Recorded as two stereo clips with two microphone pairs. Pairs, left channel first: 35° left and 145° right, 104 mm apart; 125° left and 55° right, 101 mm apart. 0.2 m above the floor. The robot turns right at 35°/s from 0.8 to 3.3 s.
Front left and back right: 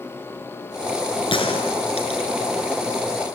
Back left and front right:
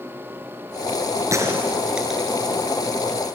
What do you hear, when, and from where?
1.3 s a gunshot: 5° left, 3.5 m; by 2.3 s 40° left, 3.5 m